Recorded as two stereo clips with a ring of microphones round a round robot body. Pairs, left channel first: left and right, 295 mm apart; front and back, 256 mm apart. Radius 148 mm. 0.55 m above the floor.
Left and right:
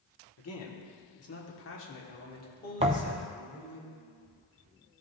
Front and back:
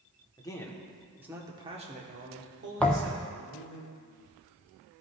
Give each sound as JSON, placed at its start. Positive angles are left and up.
{"t": 0.4, "sound": "a man speaking", "azimuth_deg": 70, "distance_m": 1.6}
{"t": 2.8, "sound": "a thud", "azimuth_deg": -75, "distance_m": 0.5}